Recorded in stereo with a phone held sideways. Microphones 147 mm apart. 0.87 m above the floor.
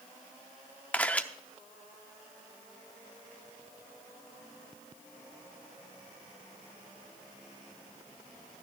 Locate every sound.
0.9 s a camera shutter: 10° left (ahead or behind), 0.6 m